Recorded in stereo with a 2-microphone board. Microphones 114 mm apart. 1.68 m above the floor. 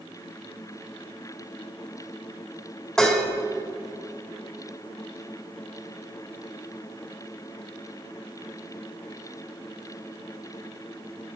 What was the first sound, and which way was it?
Dishes clattering, 5° left (ahead or behind).